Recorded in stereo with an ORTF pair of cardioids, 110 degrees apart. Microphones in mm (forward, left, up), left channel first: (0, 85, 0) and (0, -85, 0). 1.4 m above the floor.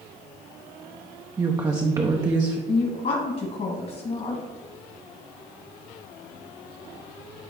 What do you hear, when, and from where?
1.4 s a woman speaking: 20° right, 0.7 m
2.7 s a woman speaking: 45° left, 1.7 m